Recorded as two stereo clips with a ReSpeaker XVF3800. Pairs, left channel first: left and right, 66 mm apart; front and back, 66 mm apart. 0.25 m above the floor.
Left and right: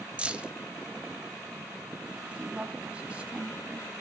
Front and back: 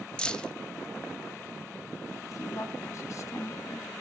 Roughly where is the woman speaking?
Ahead right.